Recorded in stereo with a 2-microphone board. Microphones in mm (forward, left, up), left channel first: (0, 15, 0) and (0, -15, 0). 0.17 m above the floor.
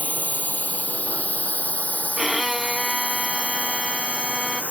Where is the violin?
10° right (ahead or behind).